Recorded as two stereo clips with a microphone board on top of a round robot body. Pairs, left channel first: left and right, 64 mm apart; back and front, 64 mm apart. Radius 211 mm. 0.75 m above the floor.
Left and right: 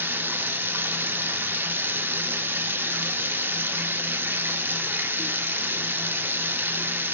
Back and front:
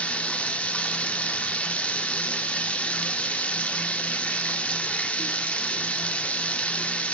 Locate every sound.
0.0 s running water: 125° right, 0.8 m